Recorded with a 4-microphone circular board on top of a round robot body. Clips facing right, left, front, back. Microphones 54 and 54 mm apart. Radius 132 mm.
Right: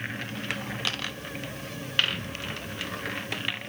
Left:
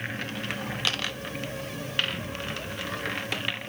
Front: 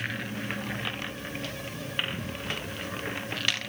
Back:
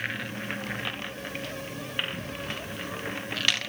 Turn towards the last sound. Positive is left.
No sound to turn to.